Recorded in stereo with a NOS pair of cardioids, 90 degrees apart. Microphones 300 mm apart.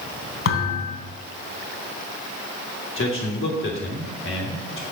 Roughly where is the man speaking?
Ahead left.